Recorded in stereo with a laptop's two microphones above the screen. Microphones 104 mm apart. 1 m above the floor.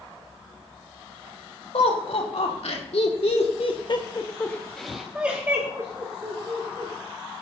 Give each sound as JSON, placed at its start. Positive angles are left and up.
{"t": 1.7, "sound": "laughter", "side_deg": 80, "distance_m": 3.5}